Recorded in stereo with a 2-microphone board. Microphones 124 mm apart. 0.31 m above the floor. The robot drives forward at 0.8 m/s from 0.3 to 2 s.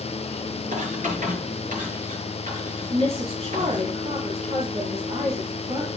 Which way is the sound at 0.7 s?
70° right (ahead or behind).